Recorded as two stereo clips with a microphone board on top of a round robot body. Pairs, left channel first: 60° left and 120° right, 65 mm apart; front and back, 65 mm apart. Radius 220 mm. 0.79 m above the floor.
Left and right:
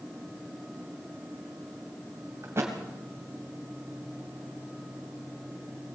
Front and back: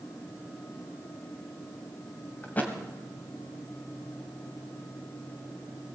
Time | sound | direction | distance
2.4 | a thud | 65° right | 1.6 m